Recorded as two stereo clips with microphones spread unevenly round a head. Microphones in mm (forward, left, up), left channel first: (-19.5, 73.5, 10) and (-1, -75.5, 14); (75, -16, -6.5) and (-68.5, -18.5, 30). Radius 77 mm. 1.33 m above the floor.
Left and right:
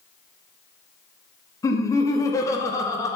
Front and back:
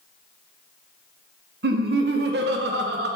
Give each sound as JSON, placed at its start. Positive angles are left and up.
{"t": 1.6, "sound": "laughter", "azimuth_deg": 170, "distance_m": 0.6}